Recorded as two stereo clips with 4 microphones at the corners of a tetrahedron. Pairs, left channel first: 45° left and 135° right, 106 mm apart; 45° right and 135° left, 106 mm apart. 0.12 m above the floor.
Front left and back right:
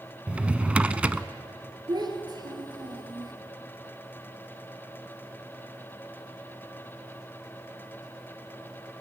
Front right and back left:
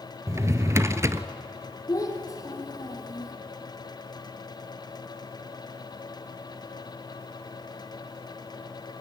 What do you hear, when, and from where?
0.3 s a drawer: 155° left, 0.6 m
1.9 s a child speaking: 95° right, 2.5 m